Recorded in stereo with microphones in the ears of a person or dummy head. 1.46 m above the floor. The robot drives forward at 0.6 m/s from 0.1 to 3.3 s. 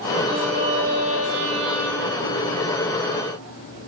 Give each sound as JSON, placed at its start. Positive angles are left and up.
{"t": 0.3, "sound": "a violin", "side_deg": -45, "distance_m": 7.0}